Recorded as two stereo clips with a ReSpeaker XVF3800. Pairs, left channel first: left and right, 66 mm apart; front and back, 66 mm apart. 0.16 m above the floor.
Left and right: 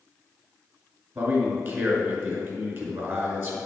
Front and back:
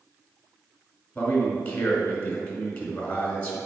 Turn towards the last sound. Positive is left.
turn(degrees=-60)